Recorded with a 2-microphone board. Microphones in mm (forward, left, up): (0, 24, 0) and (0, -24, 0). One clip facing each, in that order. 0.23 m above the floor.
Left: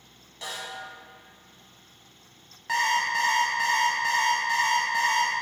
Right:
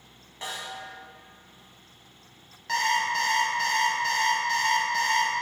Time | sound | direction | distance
0.4 | a snare drum | 30° right (ahead or behind) | 0.8 m
2.7 | an alarm clock | 15° left (ahead or behind) | 0.6 m